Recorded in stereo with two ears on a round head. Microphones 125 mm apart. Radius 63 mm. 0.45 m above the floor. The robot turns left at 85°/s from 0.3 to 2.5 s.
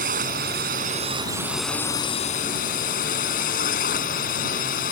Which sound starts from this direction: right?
A drone, at 0.0 s.